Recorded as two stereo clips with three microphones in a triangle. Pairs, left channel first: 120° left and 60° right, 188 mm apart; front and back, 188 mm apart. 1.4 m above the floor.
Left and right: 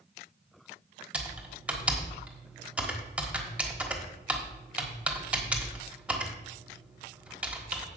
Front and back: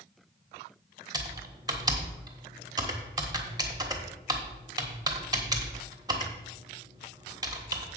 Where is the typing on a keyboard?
135° right, 1.3 m.